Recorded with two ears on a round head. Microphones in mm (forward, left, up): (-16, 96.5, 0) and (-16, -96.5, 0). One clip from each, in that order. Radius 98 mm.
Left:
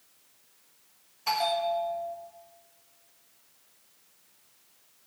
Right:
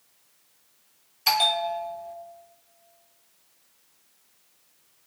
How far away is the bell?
About 1.2 m.